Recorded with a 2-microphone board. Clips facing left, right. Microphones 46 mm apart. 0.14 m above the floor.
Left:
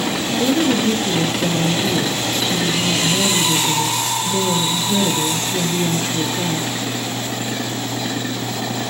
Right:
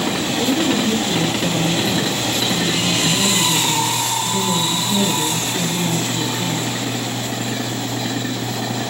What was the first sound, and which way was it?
A woman speaking, 60° left (ahead or behind).